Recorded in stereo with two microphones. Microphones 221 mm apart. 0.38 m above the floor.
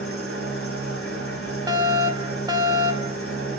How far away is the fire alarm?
About 1.8 m.